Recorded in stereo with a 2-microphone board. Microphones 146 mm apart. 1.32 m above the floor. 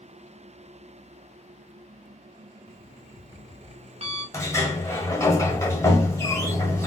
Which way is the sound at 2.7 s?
45° right (ahead or behind).